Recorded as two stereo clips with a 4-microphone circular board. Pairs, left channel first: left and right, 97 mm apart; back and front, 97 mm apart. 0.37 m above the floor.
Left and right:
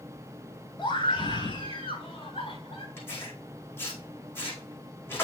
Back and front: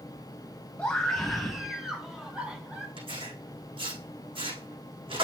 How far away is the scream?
About 2.5 m.